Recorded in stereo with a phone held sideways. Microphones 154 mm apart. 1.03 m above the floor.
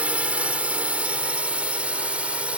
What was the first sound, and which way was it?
A drone, 5° right (ahead or behind).